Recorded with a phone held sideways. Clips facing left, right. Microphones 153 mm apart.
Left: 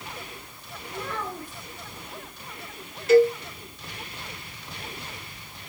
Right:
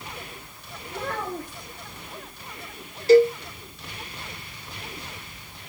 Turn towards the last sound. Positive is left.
turn(degrees=-35)  # may be behind; listen again after turning